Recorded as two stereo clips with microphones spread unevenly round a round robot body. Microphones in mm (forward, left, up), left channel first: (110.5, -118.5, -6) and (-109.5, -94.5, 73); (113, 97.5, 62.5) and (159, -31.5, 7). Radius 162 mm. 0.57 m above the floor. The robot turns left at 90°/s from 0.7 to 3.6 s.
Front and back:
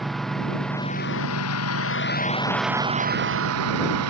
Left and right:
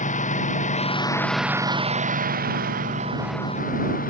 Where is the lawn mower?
85° left; by 4.1 s 175° left.